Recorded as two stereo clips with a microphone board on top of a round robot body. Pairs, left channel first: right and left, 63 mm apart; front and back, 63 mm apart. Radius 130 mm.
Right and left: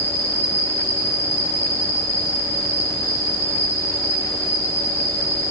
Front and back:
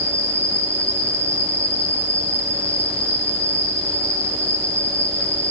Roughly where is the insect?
Left.